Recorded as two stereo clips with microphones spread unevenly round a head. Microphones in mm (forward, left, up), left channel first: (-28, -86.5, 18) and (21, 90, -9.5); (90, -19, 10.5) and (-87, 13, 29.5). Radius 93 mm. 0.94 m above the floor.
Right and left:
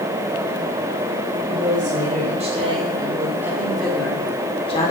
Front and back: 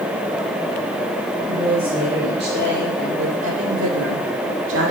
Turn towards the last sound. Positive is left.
turn(degrees=-165)